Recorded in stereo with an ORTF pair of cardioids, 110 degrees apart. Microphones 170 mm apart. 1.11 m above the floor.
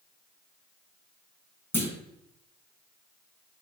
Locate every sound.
1.7 s a clunk: 15° left, 1.5 m